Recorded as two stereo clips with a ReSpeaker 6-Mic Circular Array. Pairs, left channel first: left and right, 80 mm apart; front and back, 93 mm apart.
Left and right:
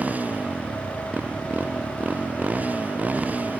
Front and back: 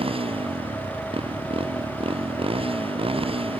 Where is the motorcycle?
165° right.